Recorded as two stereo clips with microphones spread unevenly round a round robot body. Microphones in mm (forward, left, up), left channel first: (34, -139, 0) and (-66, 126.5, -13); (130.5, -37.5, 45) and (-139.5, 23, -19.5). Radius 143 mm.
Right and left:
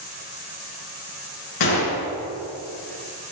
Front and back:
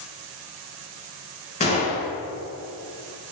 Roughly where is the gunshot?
Right.